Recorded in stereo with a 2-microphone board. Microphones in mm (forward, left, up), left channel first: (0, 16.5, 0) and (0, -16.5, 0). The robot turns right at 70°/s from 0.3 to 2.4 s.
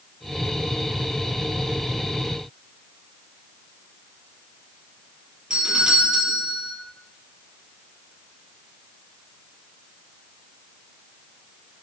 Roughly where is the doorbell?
Centre.